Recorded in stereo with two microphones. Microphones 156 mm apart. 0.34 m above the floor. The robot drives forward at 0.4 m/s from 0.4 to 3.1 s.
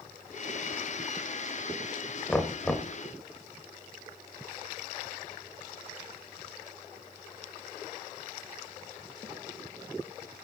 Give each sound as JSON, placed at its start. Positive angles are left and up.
{"t": 2.3, "sound": "knocking", "side_deg": 5, "distance_m": 1.1}